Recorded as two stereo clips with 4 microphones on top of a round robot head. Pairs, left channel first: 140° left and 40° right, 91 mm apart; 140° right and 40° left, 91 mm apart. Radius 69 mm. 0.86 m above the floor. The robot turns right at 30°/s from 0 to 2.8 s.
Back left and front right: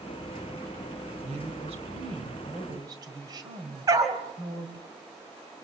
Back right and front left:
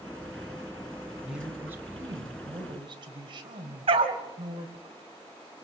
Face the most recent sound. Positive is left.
turn(degrees=10)